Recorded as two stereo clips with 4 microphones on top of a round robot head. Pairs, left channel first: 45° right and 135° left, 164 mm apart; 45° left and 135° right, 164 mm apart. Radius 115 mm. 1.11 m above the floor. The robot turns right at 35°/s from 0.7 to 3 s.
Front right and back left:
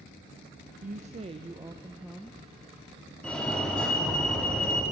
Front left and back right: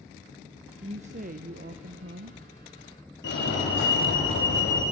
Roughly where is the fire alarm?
Ahead left.